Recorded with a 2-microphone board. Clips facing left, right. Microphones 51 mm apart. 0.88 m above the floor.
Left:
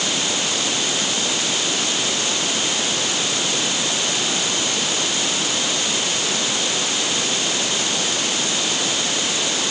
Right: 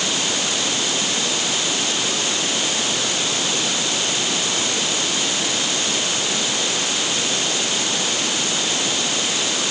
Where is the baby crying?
No baby crying in this recording.